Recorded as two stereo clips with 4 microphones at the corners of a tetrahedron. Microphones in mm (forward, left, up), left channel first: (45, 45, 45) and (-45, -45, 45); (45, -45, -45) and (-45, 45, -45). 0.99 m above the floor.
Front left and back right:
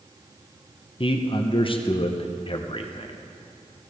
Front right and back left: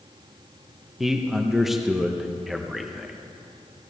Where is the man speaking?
45° left, 0.7 m.